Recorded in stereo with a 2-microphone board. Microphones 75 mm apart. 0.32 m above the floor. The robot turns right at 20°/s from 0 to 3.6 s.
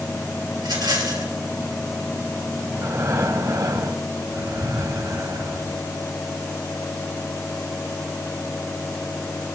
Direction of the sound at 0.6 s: 75° right (ahead or behind).